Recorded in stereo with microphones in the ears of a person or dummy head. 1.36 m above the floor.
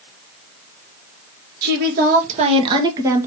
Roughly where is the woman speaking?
Right.